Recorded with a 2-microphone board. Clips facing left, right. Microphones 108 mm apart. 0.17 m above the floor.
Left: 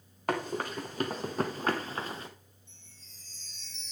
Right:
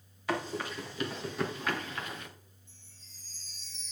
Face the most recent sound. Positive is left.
turn(degrees=-5)  # may be behind; listen again after turning